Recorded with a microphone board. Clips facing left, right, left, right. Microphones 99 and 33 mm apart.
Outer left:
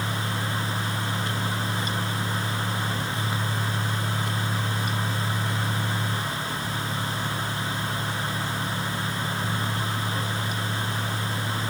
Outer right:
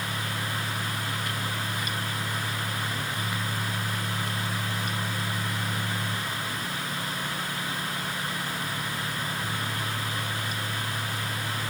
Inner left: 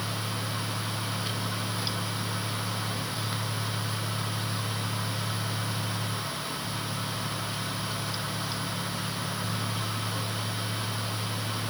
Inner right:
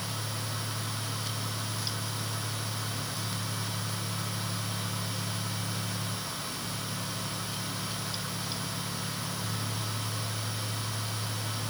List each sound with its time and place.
Only background noise.